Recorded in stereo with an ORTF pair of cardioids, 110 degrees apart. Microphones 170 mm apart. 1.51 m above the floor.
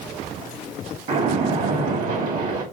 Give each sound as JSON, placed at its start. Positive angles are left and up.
{"t": 1.1, "sound": "a splash", "azimuth_deg": -55, "distance_m": 2.5}